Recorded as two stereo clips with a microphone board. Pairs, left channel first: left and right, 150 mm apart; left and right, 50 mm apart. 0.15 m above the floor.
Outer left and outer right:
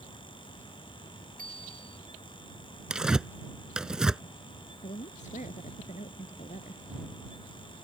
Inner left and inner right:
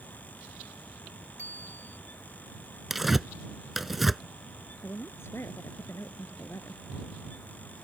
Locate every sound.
1.4 s a bicycle bell: 65° right (ahead or behind)
2.9 s tearing paper: 5° right (ahead or behind)
4.8 s a woman speaking: 55° left (ahead or behind)